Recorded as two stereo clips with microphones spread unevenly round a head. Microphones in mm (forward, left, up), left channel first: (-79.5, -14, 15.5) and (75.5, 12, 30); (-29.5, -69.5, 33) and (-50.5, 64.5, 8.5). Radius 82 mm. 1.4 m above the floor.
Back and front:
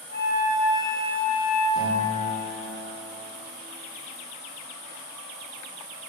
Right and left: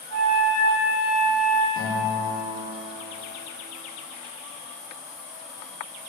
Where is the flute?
60° right, 1.7 m.